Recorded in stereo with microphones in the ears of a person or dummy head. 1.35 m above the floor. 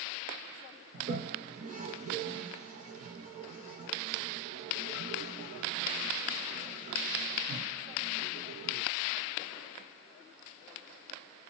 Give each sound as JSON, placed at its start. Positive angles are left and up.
{"t": 0.9, "sound": "a toilet flushing", "side_deg": -35, "distance_m": 0.6}